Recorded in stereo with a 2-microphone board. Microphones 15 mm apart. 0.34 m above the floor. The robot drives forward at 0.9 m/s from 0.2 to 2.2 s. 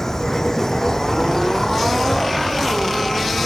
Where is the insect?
35° left (ahead or behind); by 3.5 s 40° left (ahead or behind).